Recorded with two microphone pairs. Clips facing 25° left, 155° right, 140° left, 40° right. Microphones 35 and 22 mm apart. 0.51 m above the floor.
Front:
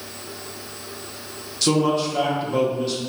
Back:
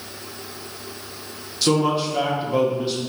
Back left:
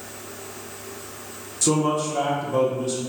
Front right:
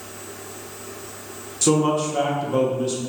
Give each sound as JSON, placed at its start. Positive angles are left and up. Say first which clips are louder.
{"t": 1.6, "sound": "a man speaking", "louder": "even, front right 2 dB", "azimuth_deg": -75, "distance_m": 0.8}